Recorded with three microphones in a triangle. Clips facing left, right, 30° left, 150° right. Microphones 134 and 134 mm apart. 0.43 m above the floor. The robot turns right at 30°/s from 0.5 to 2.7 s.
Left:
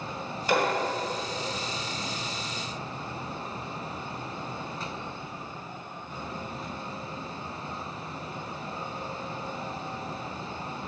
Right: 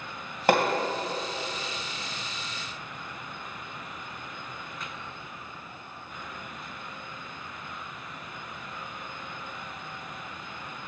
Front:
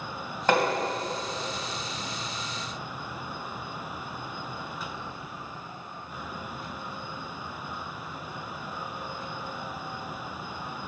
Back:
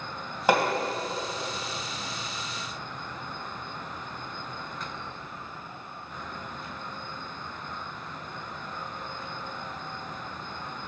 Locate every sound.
0.5 s hammering: 70° right, 2.5 m; by 0.7 s 65° right, 2.5 m